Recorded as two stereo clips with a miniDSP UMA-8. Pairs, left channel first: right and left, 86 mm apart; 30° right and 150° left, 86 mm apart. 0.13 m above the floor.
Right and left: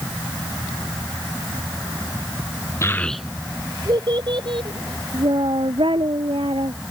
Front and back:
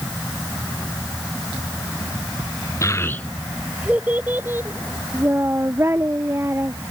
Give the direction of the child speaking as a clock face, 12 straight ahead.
2 o'clock.